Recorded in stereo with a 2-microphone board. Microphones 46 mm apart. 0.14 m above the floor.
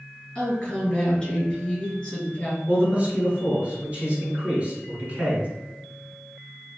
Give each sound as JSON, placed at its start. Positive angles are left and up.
{"t": 0.3, "sound": "a woman speaking", "side_deg": 20, "distance_m": 1.5}
{"t": 2.7, "sound": "a man speaking", "side_deg": -30, "distance_m": 1.1}